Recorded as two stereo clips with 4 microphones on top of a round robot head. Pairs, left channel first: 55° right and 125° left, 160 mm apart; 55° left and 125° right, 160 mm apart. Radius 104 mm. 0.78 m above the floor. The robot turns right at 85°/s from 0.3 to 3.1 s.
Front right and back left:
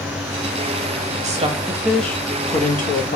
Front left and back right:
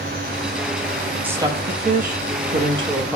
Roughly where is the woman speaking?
Behind left.